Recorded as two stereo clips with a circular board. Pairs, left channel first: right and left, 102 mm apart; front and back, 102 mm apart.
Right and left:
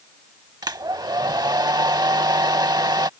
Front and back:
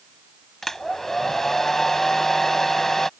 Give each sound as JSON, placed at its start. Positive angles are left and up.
{"t": 0.6, "sound": "a hair dryer", "azimuth_deg": 85}